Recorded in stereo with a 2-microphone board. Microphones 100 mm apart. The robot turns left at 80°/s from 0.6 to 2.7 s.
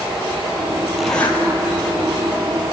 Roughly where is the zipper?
Behind.